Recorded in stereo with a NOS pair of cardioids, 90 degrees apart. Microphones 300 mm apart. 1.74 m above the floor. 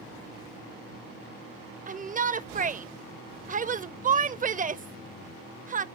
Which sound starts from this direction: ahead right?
A shout, at 1.9 s.